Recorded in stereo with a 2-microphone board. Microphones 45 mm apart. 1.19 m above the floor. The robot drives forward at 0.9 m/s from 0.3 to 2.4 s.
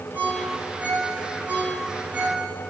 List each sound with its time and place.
0.1 s a ringtone: 40° right (ahead or behind), 8 m; by 2.4 s 30° right (ahead or behind), 10 m